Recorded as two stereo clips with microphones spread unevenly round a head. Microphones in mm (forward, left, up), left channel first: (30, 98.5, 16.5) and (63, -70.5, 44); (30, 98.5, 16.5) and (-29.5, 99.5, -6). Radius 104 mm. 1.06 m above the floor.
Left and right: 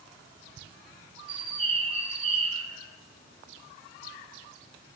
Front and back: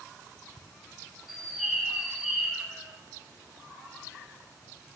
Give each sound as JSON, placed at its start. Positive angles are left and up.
{"t": 1.3, "sound": "a bird", "azimuth_deg": -130, "distance_m": 0.6}